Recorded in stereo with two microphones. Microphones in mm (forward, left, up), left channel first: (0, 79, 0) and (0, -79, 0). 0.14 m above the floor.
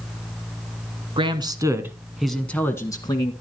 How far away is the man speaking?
About 1.2 m.